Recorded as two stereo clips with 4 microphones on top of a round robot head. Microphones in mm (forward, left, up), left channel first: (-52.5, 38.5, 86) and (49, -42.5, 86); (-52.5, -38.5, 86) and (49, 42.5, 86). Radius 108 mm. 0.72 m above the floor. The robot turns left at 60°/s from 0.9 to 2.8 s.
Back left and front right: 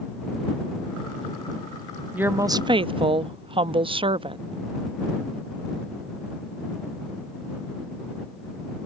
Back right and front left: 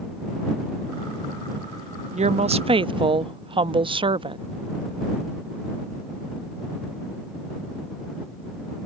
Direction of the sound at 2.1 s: 40° left.